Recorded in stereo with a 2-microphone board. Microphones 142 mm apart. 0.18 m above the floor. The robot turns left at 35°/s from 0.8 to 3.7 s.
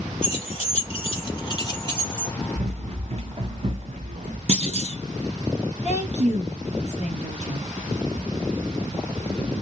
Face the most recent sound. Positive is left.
turn(degrees=-55)  # may be behind; listen again after turning